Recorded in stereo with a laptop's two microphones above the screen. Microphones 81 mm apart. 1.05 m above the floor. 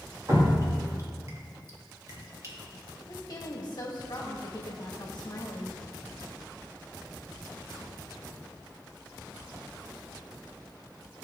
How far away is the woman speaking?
About 1.8 m.